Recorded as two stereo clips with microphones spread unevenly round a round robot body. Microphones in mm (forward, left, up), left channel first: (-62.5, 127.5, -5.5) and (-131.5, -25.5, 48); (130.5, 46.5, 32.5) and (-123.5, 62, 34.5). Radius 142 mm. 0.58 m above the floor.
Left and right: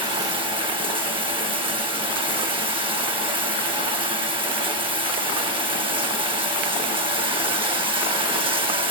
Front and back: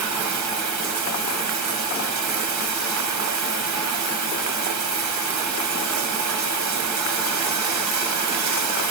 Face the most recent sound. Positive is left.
turn(degrees=180)